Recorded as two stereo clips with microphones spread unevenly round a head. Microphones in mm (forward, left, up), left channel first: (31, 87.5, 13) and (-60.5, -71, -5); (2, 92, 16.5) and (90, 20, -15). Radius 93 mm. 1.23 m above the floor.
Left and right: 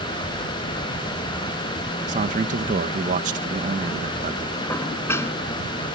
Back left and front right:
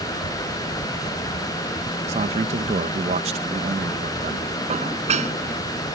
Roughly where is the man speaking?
Right.